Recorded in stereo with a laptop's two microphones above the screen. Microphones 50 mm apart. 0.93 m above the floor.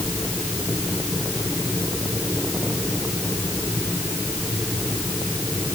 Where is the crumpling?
No crumpling in this recording.